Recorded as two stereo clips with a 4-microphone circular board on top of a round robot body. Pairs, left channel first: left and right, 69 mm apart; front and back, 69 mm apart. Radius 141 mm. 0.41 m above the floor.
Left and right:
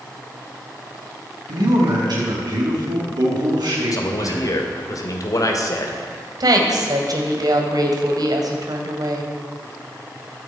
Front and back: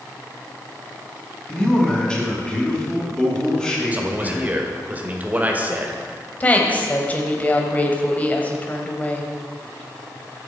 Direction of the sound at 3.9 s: 115° left.